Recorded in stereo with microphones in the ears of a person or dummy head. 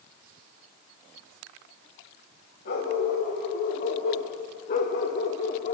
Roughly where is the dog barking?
Left.